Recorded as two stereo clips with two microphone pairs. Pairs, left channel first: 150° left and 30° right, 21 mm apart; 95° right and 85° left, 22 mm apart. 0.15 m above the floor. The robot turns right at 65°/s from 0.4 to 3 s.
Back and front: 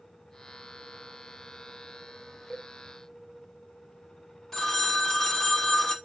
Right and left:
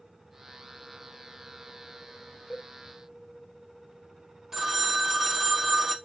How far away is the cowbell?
About 0.8 m.